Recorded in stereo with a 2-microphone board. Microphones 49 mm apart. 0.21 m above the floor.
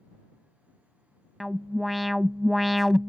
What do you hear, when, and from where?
1.4 s an alarm: centre (ahead or behind)